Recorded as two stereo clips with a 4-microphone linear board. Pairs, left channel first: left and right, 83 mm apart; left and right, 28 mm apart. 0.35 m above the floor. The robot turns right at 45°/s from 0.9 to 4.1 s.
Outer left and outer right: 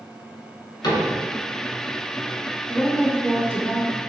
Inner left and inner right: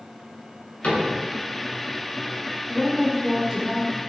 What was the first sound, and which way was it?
A cupboard door, 60° left (ahead or behind).